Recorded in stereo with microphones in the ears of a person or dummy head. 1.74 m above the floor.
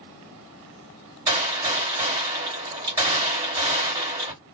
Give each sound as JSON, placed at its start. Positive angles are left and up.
{"t": 1.3, "sound": "a gunshot", "side_deg": -25, "distance_m": 1.8}